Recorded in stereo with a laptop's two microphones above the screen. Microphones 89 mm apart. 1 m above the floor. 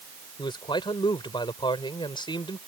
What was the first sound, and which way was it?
A man speaking, 60° left (ahead or behind).